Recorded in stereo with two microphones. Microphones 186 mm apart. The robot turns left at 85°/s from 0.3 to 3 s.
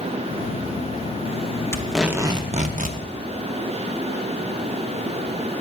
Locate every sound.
1.7 s tape being pulled: 20° left, 0.7 m; by 3.0 s 90° right, 0.7 m